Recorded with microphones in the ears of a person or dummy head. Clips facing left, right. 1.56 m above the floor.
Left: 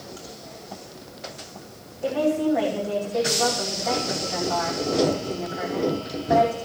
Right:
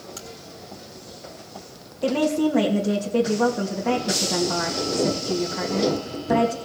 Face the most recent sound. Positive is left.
turn(degrees=-60)  # may be behind; listen again after turning